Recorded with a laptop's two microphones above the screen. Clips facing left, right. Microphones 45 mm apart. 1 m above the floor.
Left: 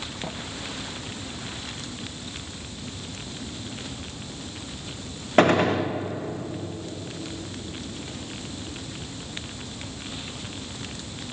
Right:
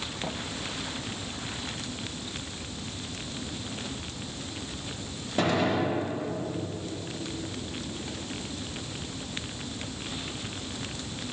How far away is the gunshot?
About 0.6 m.